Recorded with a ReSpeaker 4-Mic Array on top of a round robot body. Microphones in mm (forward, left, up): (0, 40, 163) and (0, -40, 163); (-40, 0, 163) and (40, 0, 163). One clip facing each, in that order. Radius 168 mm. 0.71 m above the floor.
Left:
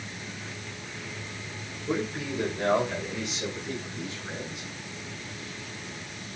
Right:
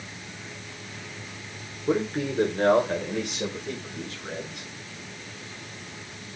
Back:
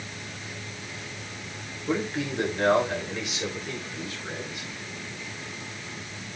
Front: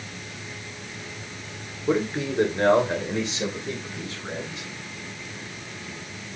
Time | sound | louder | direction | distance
1.9 | a man speaking | right 5 dB, front 4 dB | 60° right | 2.5 m